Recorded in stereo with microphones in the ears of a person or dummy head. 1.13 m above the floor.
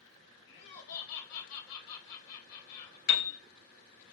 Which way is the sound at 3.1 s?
65° left (ahead or behind).